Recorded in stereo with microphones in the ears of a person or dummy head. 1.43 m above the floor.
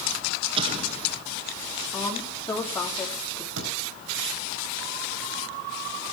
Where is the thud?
80° right, 4 m.